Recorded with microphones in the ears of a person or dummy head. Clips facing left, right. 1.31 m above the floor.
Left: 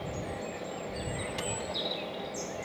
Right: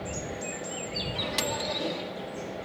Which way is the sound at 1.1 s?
80° right.